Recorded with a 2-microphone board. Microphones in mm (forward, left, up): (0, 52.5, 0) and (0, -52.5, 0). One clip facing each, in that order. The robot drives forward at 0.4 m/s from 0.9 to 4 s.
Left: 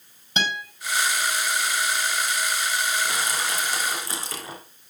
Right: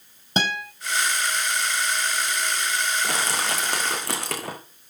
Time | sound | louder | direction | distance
0.4 | a guitar | right 2 dB | 35° right (ahead or behind) | 4.5 m
3.0 | crushing | right 1 dB | 75° right (ahead or behind) | 3.5 m